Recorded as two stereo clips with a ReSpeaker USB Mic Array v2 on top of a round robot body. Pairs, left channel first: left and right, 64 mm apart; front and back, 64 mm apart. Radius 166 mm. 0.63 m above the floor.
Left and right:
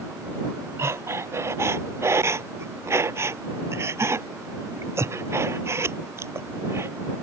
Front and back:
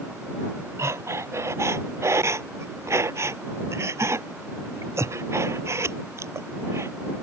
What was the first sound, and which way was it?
Breathing, 135° right.